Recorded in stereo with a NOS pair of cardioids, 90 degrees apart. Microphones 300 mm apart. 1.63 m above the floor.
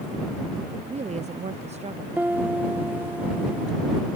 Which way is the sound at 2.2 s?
5° right.